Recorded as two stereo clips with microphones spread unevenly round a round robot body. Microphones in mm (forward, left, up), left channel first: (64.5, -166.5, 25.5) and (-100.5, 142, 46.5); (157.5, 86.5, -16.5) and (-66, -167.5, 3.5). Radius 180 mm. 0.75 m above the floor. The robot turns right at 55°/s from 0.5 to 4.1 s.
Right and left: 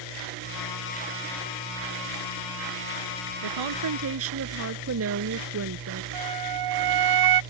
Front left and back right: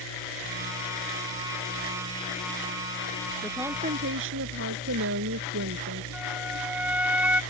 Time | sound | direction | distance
3.4 | a woman speaking | 130° left | ?
6.1 | a flute | 145° left | ?